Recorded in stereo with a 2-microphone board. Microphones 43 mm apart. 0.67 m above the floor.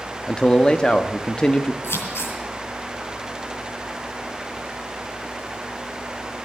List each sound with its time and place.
0.3 s a man speaking: 20° left (ahead or behind), 0.7 m
1.8 s scissors: 85° left, 4.5 m